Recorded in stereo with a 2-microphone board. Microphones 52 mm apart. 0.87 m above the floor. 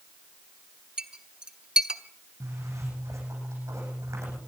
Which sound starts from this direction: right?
A zipper, at 2.4 s.